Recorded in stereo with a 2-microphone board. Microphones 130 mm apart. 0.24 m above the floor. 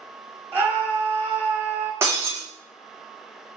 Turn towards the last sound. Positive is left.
turn(degrees=-20)  # may be behind; listen again after turning